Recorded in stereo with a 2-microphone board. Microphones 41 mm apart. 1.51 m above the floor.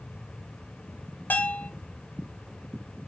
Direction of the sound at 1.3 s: 50° left (ahead or behind).